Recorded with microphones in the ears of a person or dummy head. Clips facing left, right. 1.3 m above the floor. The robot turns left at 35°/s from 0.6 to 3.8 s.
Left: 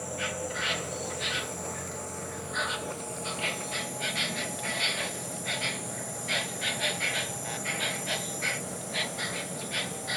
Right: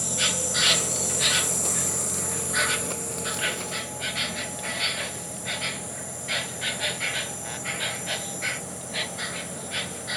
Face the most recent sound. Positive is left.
turn(degrees=180)